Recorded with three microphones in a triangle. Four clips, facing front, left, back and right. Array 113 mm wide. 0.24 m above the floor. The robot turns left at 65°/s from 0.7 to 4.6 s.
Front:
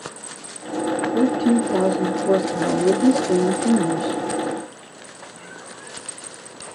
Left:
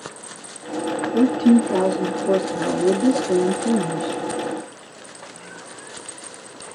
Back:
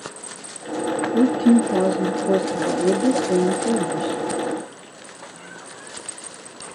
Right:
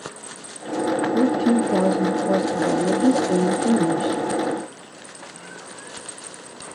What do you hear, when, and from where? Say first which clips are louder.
1.1 s a woman speaking: left 5 dB, back 3 dB; 110° left, 2.5 m; by 4.2 s 90° right, 2.5 m